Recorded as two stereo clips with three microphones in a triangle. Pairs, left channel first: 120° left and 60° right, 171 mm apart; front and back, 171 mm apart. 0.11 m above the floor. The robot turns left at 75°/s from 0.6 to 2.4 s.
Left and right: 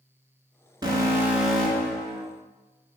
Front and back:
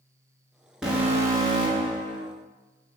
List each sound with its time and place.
0.8 s an alarm: 95° right, 1.1 m; by 2.2 s 155° left, 1.1 m